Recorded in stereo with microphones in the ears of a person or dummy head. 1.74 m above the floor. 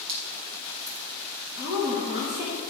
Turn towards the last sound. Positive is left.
turn(degrees=-20)  # may be behind; listen again after turning